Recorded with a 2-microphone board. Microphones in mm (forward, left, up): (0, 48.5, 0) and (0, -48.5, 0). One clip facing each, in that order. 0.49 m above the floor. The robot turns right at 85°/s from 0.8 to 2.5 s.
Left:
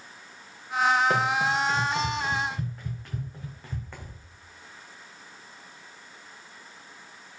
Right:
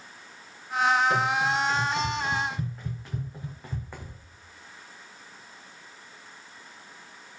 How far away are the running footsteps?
About 3.5 m.